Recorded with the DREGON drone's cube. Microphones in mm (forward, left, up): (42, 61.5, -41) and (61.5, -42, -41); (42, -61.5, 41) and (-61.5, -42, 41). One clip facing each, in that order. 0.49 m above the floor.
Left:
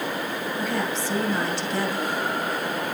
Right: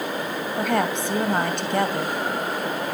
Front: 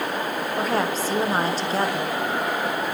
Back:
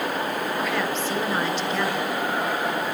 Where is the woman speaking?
60° right, 2.5 m.